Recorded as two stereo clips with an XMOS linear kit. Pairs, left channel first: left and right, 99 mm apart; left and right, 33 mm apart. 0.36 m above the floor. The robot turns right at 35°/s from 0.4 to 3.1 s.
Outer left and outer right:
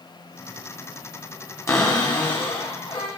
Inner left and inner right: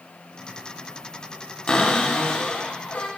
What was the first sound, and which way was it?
A cupboard door, 35° left.